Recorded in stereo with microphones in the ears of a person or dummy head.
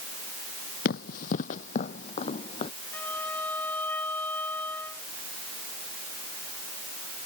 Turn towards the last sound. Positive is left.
turn(degrees=15)  # may be behind; listen again after turning